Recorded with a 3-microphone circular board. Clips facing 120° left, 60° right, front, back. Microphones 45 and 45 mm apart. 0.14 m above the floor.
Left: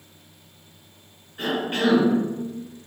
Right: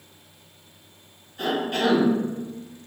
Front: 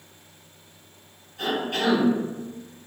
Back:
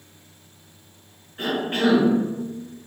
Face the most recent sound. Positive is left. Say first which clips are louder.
# even, back 3 dB
turn(degrees=165)